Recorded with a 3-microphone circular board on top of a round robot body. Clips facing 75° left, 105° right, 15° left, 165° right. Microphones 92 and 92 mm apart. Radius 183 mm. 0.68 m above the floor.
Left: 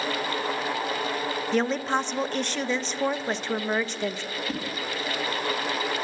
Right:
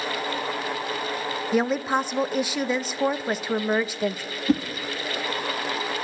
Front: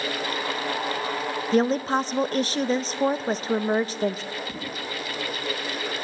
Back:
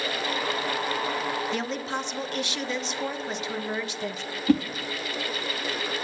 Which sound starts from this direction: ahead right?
A woman speaking, at 1.5 s.